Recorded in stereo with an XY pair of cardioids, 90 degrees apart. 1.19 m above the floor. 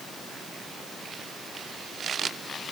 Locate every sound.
Only background noise.